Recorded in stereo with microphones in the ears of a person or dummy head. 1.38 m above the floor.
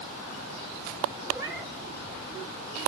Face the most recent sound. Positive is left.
turn(degrees=-10)  # may be behind; listen again after turning